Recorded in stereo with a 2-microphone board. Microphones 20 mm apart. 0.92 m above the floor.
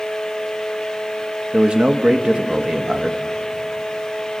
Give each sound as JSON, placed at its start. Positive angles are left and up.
{"t": 1.5, "sound": "a man speaking", "side_deg": -50, "distance_m": 1.1}